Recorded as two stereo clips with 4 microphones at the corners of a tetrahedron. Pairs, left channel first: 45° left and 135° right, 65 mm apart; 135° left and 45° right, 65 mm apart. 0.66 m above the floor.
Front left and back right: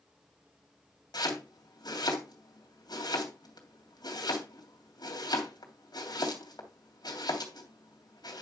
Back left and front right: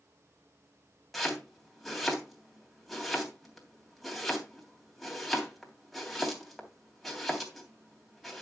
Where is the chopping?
50° left, 3 m.